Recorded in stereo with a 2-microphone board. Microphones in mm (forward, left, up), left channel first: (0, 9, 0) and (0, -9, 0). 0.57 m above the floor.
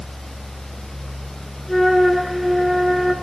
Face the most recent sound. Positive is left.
turn(degrees=0)  # may be behind; listen again after turning